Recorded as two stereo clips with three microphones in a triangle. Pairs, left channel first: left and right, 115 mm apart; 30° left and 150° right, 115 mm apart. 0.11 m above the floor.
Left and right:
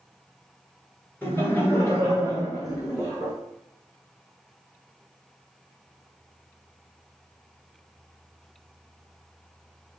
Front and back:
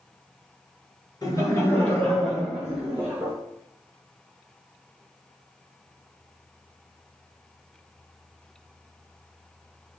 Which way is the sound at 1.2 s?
30° left.